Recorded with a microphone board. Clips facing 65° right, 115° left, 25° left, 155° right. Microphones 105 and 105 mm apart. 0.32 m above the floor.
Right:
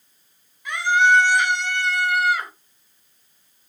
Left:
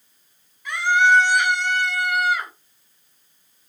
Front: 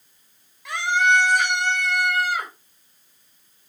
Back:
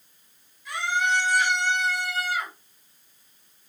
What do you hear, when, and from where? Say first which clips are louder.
0.7 s a scream: even, front 5 dB; 5° left, 6 m; by 2.5 s 10° right, 6.5 m